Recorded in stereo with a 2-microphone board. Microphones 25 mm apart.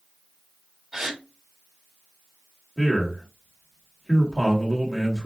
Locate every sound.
0.9 s a gasp: 20° right (ahead or behind), 1.1 m
2.8 s a man speaking: 15° right (ahead or behind), 1.5 m